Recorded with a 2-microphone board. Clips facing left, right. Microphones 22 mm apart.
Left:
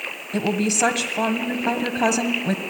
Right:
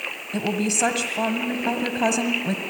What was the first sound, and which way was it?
A woman speaking, 10° left (ahead or behind).